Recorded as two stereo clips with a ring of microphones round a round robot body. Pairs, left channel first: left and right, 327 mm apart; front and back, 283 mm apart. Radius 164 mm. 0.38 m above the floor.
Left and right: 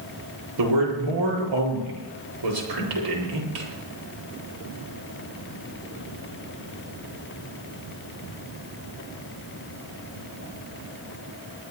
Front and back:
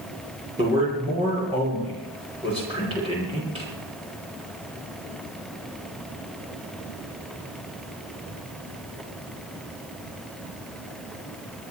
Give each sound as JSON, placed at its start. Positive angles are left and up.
{"t": 0.6, "sound": "a man speaking", "azimuth_deg": -105, "distance_m": 8.5}